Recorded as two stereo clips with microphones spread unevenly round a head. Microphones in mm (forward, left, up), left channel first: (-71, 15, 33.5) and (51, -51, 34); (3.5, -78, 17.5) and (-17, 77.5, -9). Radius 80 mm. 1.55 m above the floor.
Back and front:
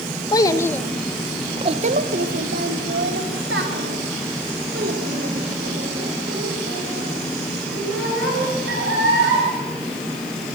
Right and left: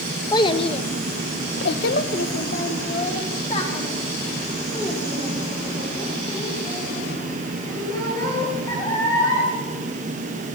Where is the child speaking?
145° right, 1.5 m; by 9.5 s 15° right, 8.5 m.